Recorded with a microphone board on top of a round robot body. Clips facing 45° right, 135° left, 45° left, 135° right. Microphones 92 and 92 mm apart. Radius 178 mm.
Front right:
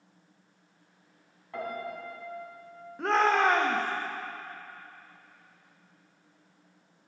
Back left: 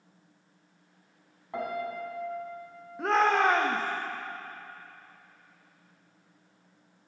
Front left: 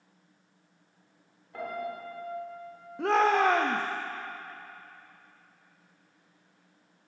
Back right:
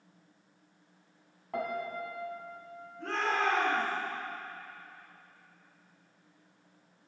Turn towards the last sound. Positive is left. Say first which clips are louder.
# even, front left 8 dB
turn(degrees=45)